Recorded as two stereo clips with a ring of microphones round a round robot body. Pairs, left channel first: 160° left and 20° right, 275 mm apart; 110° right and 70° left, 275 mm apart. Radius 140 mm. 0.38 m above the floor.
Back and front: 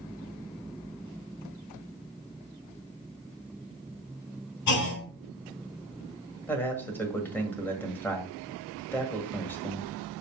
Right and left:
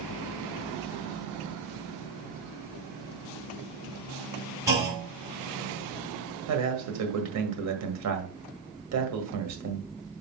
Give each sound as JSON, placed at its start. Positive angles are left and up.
{"t": 4.7, "sound": "a clunk", "azimuth_deg": 145, "distance_m": 3.5}
{"t": 6.5, "sound": "a man speaking", "azimuth_deg": 75, "distance_m": 1.7}